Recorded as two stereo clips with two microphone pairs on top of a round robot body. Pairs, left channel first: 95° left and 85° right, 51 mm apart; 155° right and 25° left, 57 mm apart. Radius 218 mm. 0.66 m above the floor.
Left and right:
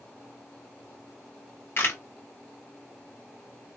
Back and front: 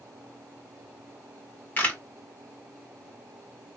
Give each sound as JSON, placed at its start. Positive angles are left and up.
{"t": 1.8, "sound": "a camera shutter", "azimuth_deg": 145, "distance_m": 1.0}